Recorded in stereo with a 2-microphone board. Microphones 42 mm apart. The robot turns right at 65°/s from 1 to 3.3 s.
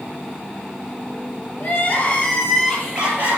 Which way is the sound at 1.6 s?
115° left.